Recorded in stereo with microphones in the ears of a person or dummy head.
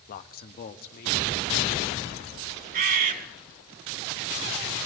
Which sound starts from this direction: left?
A man speaking, at 0.1 s.